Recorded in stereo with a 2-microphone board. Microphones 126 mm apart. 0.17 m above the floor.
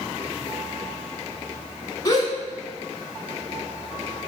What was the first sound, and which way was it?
A gasp, 30° left (ahead or behind).